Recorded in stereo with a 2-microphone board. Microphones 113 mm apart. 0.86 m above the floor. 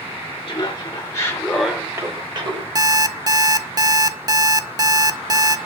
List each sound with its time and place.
0.5 s laughter: 45° left (ahead or behind), 1.6 m; by 2.6 s 50° right (ahead or behind), 1.4 m
2.8 s an alarm clock: 35° right (ahead or behind), 0.6 m